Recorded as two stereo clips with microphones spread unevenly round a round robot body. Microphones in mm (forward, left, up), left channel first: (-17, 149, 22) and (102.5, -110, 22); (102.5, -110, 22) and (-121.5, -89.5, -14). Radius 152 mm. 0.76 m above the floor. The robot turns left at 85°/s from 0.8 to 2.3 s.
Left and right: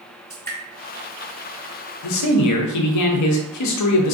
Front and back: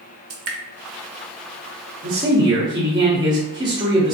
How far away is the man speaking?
About 0.7 m.